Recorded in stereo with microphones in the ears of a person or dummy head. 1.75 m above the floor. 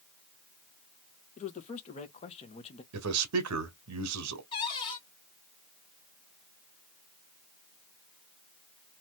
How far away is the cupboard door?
About 2 m.